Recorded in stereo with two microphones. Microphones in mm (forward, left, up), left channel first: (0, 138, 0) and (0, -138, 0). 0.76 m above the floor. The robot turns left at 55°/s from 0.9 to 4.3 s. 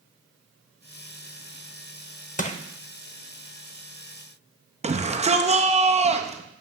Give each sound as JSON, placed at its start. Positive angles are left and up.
{"t": 2.4, "sound": "crushing", "side_deg": 30, "distance_m": 0.6}
{"t": 4.8, "sound": "a shout", "side_deg": -25, "distance_m": 0.7}